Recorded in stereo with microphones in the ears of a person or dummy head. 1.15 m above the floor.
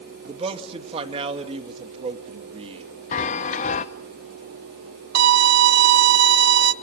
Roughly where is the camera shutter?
No camera shutter in this recording.